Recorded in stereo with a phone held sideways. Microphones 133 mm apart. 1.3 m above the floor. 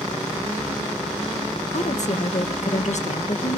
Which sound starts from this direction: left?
A woman speaking, at 1.7 s.